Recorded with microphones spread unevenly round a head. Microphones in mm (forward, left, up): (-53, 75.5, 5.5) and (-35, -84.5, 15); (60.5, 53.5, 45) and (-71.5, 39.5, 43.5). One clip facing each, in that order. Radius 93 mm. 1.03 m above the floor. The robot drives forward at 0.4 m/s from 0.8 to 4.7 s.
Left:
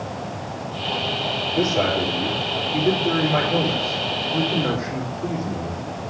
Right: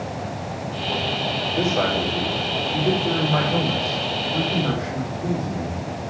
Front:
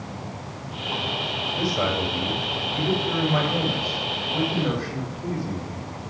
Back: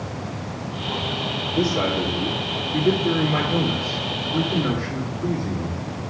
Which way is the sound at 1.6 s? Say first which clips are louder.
Left 2 dB, back 4 dB; 175° left.